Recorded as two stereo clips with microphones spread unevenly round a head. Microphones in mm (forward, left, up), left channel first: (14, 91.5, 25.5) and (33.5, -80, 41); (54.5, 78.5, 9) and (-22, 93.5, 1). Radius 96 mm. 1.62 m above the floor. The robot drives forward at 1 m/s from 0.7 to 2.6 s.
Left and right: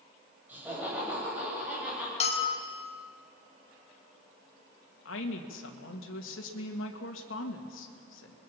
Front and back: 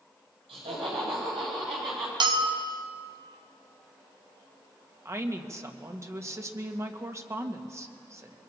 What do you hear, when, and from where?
0.5 s laughter: 165° right, 8.5 m
2.2 s a bell: 155° left, 1.3 m; by 2.9 s 160° left, 1.7 m
5.0 s a woman speaking: 115° left, 2 m